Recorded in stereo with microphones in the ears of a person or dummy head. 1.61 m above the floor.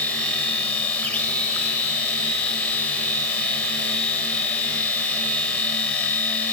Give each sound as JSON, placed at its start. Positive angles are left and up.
{"t": 0.0, "sound": "a machine running", "side_deg": 5, "distance_m": 1.7}